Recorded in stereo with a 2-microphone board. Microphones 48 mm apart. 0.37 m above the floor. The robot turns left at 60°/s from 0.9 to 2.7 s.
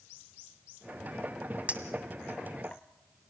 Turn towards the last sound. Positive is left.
turn(degrees=25)  # may be behind; listen again after turning